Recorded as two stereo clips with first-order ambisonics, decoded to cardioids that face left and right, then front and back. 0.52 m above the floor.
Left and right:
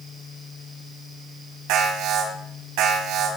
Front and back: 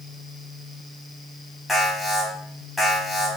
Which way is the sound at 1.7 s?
80° right.